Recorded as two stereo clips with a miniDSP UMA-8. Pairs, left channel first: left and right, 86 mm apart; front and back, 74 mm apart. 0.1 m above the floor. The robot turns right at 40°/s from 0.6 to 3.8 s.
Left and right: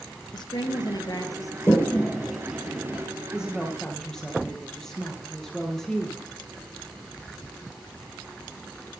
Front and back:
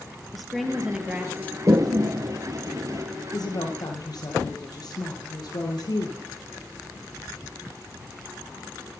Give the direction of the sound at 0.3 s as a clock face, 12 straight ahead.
9 o'clock.